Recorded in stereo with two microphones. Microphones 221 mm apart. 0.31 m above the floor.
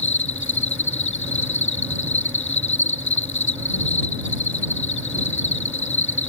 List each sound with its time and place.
0.0 s an insect: 65° left (ahead or behind)